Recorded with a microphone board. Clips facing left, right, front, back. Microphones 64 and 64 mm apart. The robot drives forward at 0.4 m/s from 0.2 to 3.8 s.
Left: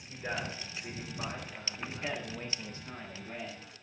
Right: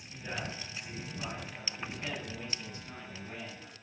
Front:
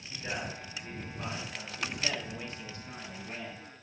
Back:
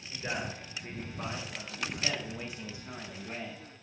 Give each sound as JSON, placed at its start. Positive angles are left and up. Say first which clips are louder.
{"t": 0.1, "sound": "a man speaking", "louder": "left 3 dB, back 1 dB", "azimuth_deg": 120, "distance_m": 2.5}
{"t": 1.8, "sound": "a man speaking", "louder": "left 2 dB, even", "azimuth_deg": 70, "distance_m": 0.8}